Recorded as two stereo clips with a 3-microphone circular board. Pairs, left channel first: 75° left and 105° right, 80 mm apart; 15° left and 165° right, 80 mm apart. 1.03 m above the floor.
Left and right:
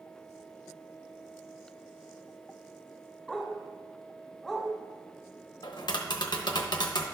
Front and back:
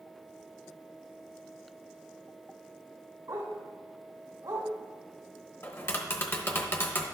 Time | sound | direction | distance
3.3 | a dog barking | 165° left | 1.9 m
5.6 | tapping | 75° left | 0.9 m